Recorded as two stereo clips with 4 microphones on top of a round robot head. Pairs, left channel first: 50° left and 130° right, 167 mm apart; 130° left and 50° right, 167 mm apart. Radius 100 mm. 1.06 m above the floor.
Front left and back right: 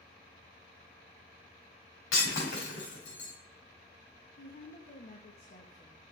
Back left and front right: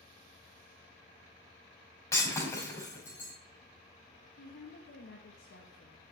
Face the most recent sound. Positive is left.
turn(degrees=105)